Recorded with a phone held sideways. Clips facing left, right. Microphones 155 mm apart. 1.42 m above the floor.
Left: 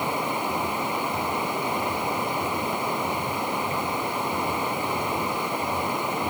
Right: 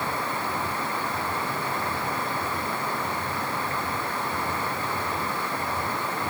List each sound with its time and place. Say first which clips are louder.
0.0 s running water: left 3 dB; 15° left (ahead or behind)